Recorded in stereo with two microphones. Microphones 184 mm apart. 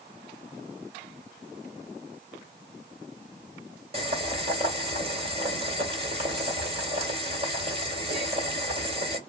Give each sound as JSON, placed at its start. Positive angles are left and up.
{"t": 3.9, "sound": "boiling", "side_deg": -30, "distance_m": 1.6}